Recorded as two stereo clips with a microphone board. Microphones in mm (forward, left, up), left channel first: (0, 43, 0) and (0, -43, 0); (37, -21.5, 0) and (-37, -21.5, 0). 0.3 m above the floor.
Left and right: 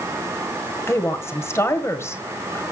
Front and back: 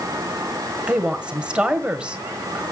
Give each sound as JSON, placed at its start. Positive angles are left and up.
{"t": 0.9, "sound": "a woman speaking", "azimuth_deg": 115, "distance_m": 1.5}